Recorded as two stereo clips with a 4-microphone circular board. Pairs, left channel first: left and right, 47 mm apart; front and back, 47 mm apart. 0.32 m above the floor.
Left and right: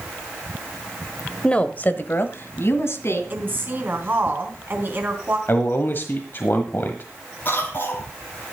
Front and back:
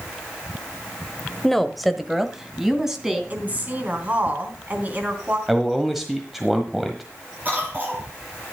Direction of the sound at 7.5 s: 130° left.